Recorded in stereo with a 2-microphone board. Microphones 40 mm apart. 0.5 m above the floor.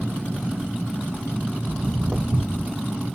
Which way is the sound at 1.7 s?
35° right (ahead or behind).